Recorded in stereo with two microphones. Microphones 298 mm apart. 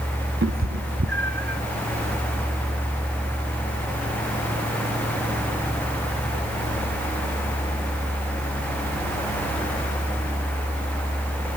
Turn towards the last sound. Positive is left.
turn(degrees=-35)  # may be behind; listen again after turning